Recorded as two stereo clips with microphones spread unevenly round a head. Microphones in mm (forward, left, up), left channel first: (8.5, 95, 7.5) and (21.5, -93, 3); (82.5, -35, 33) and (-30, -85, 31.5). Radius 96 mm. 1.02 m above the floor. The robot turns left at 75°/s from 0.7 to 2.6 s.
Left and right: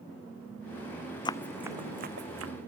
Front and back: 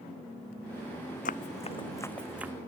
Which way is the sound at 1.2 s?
30° left.